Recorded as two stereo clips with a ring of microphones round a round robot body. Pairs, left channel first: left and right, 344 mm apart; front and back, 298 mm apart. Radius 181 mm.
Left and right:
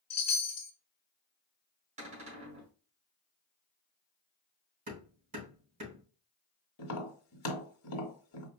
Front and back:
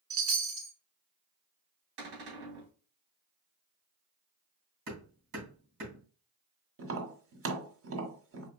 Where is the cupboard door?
160° right, 2.5 m.